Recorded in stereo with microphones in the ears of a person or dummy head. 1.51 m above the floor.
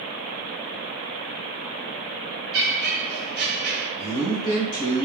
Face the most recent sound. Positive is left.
turn(degrees=70)  # may be behind; listen again after turning